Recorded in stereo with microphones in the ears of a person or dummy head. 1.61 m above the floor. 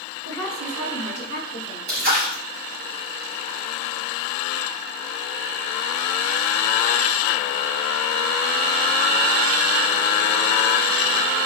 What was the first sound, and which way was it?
A woman speaking, 85° right.